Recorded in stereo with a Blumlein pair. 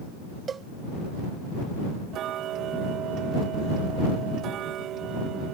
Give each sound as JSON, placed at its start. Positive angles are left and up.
{"t": 0.5, "sound": "a cowbell", "azimuth_deg": -20}
{"t": 2.1, "sound": "ticking", "azimuth_deg": -30}